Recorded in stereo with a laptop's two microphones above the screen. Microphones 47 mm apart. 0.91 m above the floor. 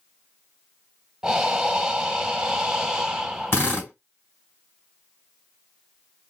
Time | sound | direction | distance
1.2 | breathing | 10° right (ahead or behind) | 0.9 m
3.5 | a drill | 55° left (ahead or behind) | 3 m